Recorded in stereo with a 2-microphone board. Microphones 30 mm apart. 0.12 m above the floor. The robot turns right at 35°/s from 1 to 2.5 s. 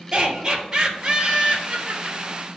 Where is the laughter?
160° right, 2.5 m; by 2.2 s 115° right, 2.5 m.